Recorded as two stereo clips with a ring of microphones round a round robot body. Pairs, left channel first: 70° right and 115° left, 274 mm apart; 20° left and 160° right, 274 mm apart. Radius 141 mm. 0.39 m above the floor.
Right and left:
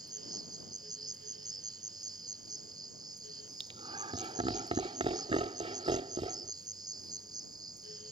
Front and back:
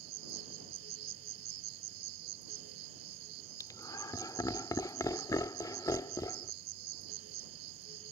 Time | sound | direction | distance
0.0 | an insect | 170° right | ?
3.6 | laughter | 80° left | ?